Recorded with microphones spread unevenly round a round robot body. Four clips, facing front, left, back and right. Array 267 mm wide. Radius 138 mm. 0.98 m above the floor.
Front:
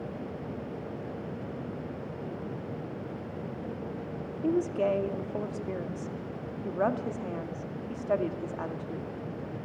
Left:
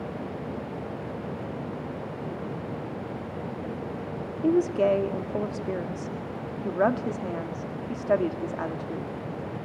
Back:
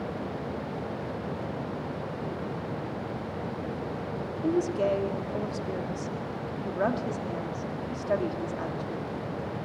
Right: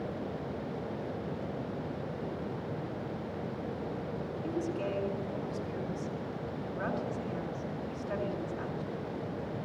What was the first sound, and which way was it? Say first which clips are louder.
A woman speaking: left 14 dB, back 1 dB; 95° left.